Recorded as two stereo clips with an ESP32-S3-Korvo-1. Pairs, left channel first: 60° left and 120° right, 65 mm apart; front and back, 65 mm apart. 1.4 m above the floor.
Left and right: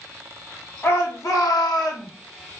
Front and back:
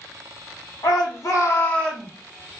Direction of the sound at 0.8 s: 10° left.